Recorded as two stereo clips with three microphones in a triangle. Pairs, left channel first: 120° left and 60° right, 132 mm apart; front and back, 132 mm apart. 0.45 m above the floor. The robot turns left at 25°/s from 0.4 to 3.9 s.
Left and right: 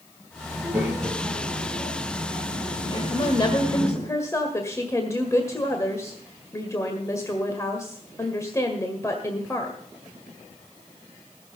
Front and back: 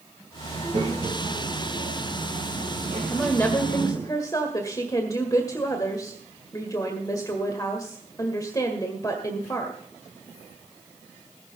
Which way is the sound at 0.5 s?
135° right.